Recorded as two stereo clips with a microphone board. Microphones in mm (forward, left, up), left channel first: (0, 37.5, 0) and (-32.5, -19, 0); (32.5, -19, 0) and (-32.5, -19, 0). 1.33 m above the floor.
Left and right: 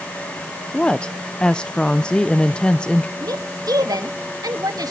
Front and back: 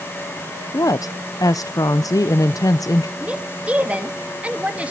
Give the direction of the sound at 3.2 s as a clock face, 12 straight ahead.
4 o'clock.